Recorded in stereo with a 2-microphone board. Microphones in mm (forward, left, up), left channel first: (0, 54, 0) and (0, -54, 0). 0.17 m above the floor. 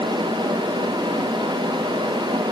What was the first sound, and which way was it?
Only background noise.